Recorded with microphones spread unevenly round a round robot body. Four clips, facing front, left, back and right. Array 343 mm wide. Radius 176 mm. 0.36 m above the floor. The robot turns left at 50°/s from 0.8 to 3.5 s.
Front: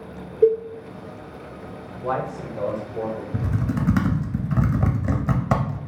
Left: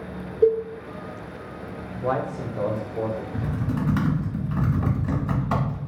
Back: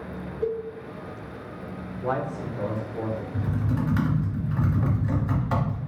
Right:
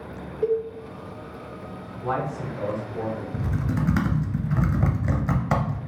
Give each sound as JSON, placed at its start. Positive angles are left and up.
{"t": 0.4, "sound": "a cowbell", "azimuth_deg": 45, "distance_m": 1.0}
{"t": 1.9, "sound": "a man speaking", "azimuth_deg": 85, "distance_m": 1.3}
{"t": 3.3, "sound": "typing on a keyboard", "azimuth_deg": -5, "distance_m": 0.7}